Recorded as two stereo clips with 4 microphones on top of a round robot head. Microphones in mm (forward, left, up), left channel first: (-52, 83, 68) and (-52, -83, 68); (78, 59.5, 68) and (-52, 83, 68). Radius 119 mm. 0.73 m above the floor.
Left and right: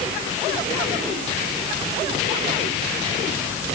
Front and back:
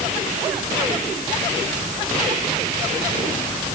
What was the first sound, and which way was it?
Only background noise.